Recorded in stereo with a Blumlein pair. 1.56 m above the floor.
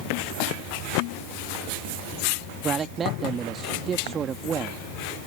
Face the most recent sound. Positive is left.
turn(degrees=-20)